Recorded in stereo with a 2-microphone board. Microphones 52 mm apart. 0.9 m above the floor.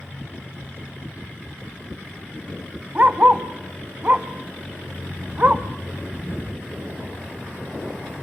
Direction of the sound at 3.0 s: 30° right (ahead or behind).